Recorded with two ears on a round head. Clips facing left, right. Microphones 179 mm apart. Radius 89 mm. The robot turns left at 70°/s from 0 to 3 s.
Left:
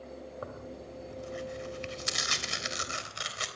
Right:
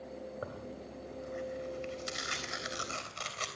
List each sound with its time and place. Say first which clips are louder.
0.4 s tearing paper: left 1 dB; 165° right, 3.5 m; by 3.5 s 15° left, 3.5 m